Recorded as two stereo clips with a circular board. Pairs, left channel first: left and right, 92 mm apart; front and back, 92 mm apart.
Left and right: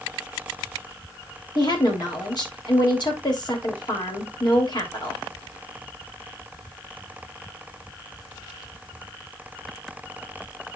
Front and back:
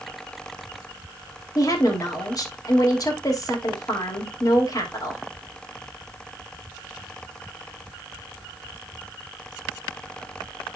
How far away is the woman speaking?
About 3 m.